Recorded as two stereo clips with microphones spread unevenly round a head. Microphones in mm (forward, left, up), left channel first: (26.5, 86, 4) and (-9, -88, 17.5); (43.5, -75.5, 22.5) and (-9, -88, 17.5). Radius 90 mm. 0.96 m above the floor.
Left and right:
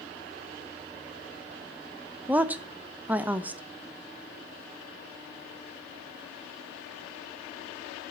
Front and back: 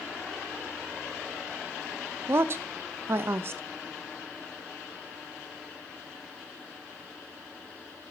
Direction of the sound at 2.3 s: 175° left.